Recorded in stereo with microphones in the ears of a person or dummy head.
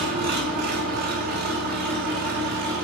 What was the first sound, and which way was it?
An engine running, 55° right (ahead or behind).